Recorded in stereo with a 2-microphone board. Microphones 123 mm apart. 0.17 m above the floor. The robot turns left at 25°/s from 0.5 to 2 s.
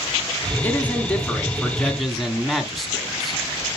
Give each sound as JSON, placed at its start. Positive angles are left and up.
{"t": 0.6, "sound": "a man speaking", "side_deg": 15, "distance_m": 1.5}